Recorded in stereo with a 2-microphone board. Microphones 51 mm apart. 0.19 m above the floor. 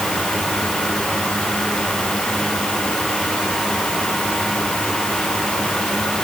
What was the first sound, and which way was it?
Only background noise.